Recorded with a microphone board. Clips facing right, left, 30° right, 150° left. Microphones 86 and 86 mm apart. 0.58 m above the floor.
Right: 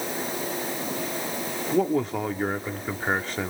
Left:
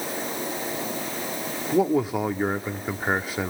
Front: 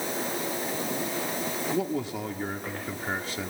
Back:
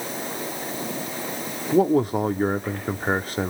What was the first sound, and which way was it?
A man speaking, 170° left.